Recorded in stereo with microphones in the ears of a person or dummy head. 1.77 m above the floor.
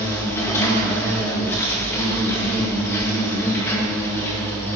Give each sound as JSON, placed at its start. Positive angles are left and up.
{"t": 0.0, "sound": "an insect", "side_deg": 15, "distance_m": 2.0}